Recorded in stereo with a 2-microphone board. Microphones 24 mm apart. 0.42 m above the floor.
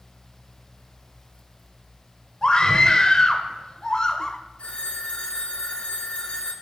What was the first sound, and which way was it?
A scream, 40° left (ahead or behind).